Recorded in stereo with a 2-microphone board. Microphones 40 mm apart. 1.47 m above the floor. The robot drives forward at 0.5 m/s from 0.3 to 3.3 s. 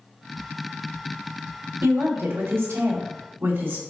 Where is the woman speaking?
70° right (ahead or behind), 0.9 m; by 3.8 s 65° right (ahead or behind), 0.9 m.